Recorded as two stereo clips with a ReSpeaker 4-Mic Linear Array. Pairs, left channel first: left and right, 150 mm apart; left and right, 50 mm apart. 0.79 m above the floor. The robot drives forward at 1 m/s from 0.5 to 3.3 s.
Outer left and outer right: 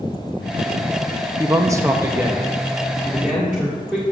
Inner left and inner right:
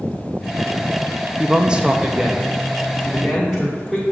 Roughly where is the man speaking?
Centre.